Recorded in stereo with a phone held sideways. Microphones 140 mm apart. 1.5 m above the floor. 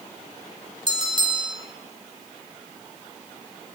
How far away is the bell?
About 6 m.